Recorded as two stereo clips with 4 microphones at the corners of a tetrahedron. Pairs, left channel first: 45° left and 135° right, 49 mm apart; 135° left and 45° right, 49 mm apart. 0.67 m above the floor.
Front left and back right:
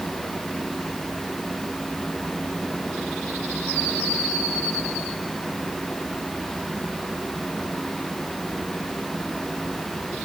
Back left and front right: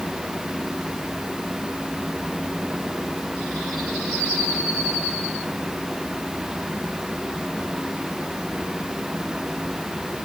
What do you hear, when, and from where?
Only background noise.